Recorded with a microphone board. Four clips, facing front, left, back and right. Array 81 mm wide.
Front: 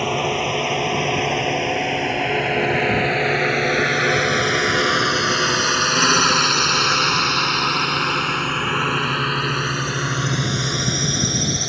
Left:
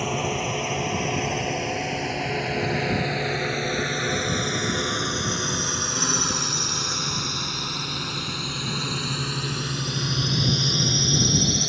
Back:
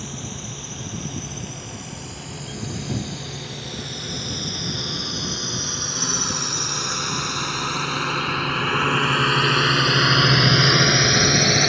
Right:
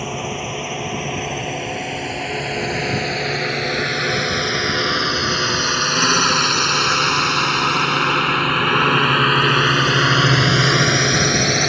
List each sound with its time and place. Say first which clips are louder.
0.0 s a drone: even, front 14 dB; straight ahead; by 11.7 s 125° right